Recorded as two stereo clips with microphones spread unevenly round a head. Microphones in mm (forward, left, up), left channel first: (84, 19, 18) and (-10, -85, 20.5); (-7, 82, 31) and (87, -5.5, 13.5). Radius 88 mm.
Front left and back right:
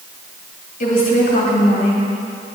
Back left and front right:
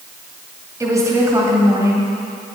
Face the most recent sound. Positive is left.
turn(degrees=25)